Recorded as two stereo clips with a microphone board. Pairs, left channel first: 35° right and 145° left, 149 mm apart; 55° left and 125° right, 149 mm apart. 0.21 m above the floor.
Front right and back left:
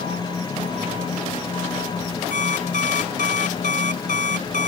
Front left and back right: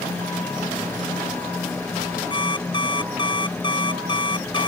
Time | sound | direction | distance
2.3 | an alarm clock | 5° right | ?